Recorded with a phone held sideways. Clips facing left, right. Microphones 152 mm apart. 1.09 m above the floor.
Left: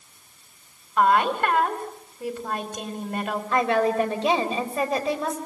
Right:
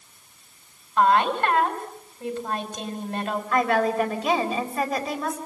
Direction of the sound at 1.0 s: 10° left (ahead or behind).